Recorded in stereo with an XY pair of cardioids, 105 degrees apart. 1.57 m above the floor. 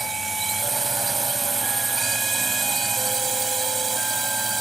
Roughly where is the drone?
Ahead right.